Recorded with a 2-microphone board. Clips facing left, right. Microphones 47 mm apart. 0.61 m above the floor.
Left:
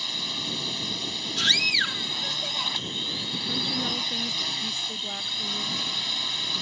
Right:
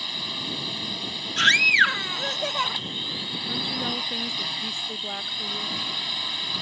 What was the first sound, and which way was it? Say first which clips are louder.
A drone: even; 10° right (ahead or behind).